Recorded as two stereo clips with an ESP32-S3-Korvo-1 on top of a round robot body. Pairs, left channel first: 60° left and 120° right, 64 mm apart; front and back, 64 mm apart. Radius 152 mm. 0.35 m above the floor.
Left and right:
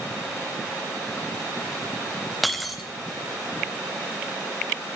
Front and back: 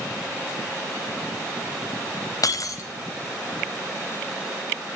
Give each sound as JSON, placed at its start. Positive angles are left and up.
{"t": 2.4, "sound": "breaking glass", "azimuth_deg": -30, "distance_m": 0.7}